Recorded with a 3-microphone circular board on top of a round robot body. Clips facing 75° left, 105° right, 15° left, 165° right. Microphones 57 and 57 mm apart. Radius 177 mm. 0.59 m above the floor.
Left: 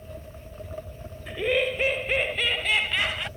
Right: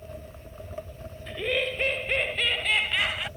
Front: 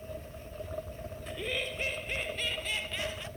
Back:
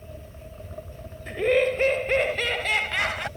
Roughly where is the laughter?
Behind left.